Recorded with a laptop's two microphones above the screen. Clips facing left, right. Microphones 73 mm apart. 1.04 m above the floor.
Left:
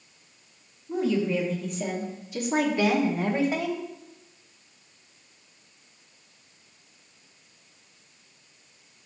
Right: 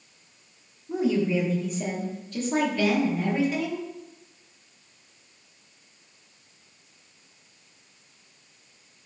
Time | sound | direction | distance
0.9 | a woman speaking | 15° right (ahead or behind) | 1.8 m